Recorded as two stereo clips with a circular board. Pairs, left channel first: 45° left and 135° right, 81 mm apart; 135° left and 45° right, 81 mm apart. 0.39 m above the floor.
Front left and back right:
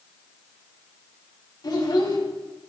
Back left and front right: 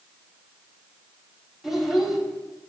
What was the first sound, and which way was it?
A child speaking, 40° left.